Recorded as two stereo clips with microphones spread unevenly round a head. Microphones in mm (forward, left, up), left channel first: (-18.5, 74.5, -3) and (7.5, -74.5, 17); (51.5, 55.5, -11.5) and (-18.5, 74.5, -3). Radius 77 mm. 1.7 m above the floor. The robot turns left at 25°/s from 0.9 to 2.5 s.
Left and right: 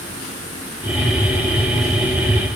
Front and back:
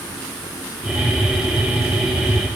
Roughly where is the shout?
I don't hear a shout.